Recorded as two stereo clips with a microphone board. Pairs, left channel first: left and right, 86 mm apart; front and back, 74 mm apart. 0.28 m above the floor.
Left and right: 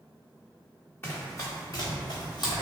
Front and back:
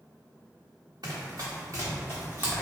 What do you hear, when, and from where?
1.0 s running footsteps: 155° left, 1.2 m; by 2.6 s 110° left, 1.0 m